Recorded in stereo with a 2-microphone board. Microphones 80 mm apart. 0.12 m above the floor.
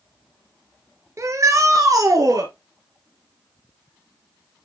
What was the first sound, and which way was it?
A shout, 40° right (ahead or behind).